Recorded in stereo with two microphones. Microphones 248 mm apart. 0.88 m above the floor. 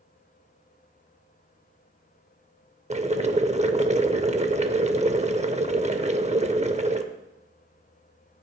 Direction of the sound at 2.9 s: 25° right (ahead or behind).